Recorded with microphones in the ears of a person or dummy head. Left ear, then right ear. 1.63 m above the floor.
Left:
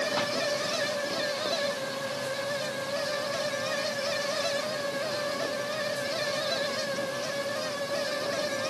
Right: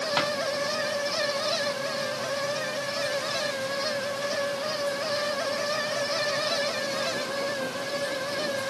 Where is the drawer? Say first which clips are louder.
Right 4 dB; 80° right, 6.5 m.